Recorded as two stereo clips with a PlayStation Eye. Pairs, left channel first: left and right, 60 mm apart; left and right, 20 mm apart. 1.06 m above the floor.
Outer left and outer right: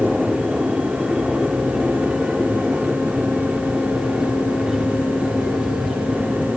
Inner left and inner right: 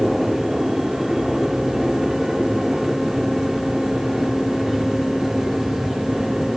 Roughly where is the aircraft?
Centre.